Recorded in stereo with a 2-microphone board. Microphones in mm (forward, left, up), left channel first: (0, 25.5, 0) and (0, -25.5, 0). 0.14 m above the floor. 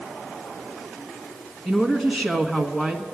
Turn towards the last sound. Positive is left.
turn(degrees=10)  # may be behind; listen again after turning